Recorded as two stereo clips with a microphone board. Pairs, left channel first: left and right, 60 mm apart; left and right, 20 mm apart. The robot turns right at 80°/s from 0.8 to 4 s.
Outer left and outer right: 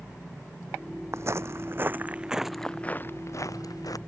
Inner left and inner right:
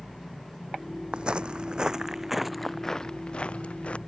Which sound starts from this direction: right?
Footsteps, at 1.1 s.